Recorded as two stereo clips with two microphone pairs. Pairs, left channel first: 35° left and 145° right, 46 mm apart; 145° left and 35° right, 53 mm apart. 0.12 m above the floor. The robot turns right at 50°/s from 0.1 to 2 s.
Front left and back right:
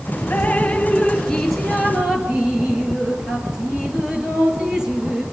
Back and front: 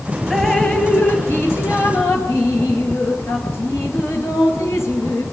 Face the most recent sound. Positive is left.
turn(degrees=145)